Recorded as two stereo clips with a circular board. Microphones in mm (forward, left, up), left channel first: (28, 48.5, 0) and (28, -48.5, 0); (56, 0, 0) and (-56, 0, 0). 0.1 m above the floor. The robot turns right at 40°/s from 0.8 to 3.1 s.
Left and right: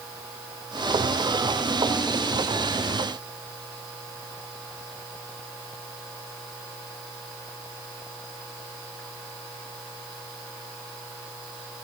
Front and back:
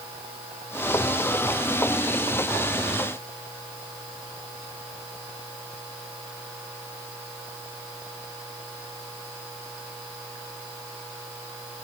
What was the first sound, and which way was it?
Only background noise.